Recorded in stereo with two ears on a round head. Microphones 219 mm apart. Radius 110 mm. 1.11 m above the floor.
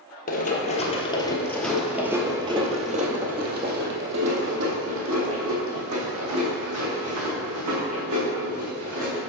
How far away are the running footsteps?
About 1.4 m.